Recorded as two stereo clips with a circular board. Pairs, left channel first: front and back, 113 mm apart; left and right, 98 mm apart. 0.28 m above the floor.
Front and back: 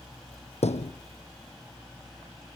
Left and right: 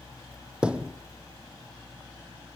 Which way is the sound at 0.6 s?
10° right.